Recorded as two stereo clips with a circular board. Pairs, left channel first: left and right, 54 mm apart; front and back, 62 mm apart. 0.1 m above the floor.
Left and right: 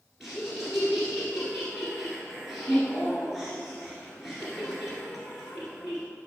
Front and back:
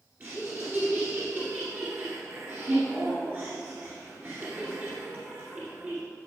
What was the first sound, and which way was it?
Laughter, 170° right.